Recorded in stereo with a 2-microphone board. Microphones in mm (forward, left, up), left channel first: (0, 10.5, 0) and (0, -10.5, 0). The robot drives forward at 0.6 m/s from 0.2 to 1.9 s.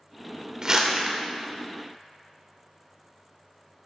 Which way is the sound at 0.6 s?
35° right (ahead or behind).